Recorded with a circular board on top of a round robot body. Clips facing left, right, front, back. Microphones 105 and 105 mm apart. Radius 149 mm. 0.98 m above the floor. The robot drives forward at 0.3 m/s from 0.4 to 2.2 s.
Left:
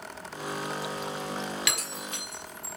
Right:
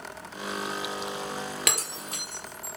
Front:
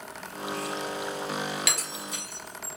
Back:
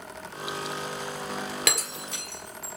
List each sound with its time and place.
1.7 s breaking glass: 140° right, 1.4 m